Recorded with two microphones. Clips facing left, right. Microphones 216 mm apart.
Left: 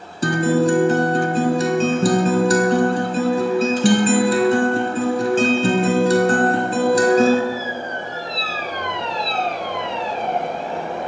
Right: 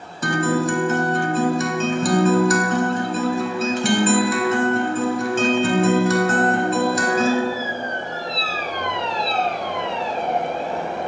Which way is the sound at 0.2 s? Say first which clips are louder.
Left 4 dB; 35° left (ahead or behind).